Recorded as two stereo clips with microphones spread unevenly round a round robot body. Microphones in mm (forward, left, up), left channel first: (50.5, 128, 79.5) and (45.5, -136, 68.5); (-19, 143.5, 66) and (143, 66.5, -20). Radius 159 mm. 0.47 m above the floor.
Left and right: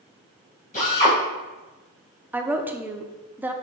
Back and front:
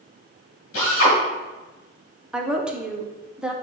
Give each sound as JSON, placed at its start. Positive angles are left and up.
{"t": 0.7, "sound": "a drill", "azimuth_deg": 155, "distance_m": 3.0}
{"t": 2.3, "sound": "a woman speaking", "azimuth_deg": -15, "distance_m": 0.8}